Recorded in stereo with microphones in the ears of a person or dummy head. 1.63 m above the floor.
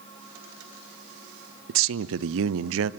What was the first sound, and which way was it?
A man speaking, 75° right (ahead or behind).